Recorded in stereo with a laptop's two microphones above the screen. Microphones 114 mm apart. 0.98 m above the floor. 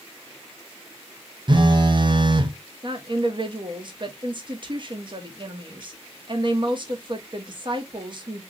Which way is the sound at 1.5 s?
45° right (ahead or behind).